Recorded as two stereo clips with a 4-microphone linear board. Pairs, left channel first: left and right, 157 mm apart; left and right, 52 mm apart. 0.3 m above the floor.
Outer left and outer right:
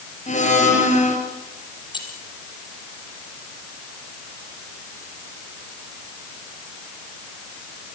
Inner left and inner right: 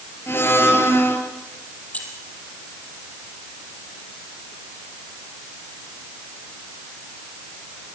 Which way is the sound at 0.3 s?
50° left (ahead or behind).